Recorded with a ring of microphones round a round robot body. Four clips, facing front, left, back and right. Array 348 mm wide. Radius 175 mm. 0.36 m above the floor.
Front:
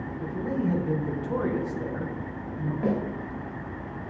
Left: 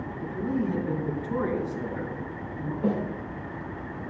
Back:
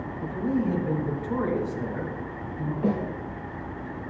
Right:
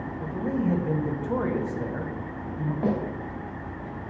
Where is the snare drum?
70° right, 3 m.